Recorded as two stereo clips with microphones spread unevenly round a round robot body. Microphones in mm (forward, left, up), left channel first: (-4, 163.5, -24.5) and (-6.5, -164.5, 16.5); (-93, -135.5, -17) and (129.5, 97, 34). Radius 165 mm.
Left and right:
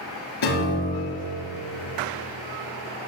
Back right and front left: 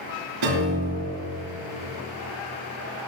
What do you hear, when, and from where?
0.4 s a piano: 70° left, 4.5 m